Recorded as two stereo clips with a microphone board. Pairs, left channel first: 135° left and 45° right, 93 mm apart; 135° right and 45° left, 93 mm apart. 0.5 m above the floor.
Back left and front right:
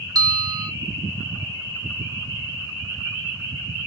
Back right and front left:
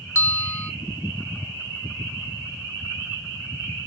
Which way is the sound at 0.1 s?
80° right.